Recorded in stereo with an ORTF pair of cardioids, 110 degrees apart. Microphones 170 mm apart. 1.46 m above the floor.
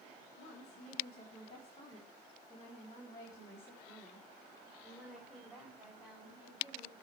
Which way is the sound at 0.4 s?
45° left.